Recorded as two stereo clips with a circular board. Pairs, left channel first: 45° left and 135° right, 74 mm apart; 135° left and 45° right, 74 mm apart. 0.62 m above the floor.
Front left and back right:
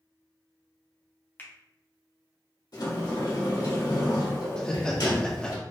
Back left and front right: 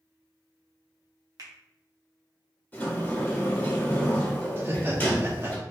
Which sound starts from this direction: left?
A sliding door, at 2.7 s.